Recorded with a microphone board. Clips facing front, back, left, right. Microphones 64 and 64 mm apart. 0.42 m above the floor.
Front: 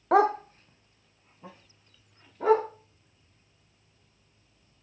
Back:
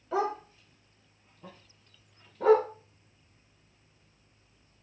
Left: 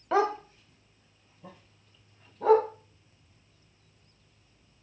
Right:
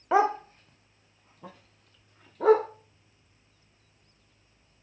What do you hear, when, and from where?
0.1 s a dog barking: 15° right, 0.6 m; by 2.7 s 85° right, 2 m